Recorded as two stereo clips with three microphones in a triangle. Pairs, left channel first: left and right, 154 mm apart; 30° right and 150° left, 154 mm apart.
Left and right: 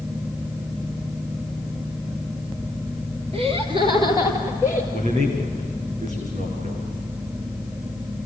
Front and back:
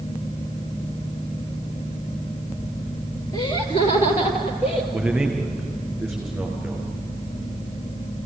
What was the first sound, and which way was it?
Laughter, 75° right.